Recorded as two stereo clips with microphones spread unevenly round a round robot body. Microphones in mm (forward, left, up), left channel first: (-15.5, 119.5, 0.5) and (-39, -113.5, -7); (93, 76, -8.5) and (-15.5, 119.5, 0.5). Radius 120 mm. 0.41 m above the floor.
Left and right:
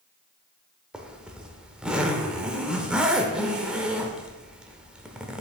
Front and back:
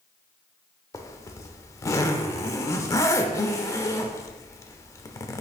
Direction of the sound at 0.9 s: 15° right.